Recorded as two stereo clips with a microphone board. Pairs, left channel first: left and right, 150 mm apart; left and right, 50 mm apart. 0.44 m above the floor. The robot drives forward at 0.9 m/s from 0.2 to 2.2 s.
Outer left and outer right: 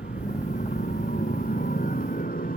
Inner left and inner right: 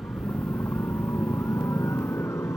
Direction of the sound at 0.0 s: 70° left (ahead or behind).